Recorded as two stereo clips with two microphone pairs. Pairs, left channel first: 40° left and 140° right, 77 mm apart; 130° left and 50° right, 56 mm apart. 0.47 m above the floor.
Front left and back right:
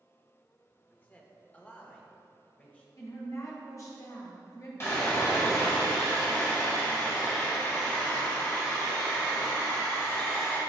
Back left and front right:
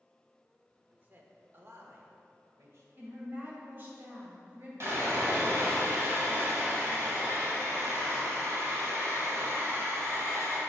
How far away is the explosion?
I don't hear an explosion.